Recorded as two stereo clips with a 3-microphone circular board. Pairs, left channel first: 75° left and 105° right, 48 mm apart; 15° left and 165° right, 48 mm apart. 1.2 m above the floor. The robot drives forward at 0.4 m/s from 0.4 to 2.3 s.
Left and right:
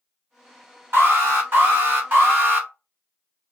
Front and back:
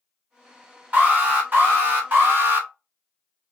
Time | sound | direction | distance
0.9 | an alarm | 120° right | 1.5 m